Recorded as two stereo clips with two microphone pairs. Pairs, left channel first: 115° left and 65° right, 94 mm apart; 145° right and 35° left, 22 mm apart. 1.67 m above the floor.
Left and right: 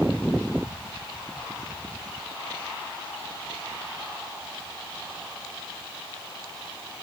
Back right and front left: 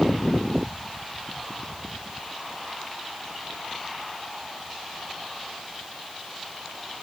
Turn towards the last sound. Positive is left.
No sound to turn to.